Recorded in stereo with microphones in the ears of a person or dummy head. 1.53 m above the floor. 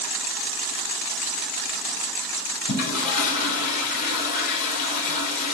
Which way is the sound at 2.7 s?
50° left (ahead or behind).